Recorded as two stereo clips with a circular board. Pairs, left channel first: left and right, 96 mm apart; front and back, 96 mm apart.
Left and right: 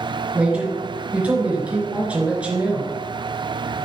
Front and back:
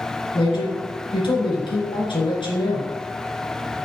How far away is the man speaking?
About 3.5 m.